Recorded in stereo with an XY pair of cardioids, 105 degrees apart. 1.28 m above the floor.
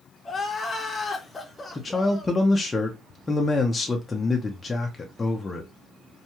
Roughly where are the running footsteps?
I don't hear running footsteps.